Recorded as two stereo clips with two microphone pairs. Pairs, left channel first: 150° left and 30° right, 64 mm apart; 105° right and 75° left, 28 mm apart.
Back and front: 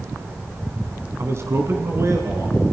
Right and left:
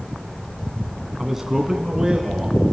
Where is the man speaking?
5° right, 2 m; by 2.6 s 10° left, 3.5 m.